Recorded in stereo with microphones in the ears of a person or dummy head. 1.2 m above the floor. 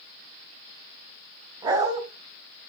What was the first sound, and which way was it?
A dog barking, 20° right (ahead or behind).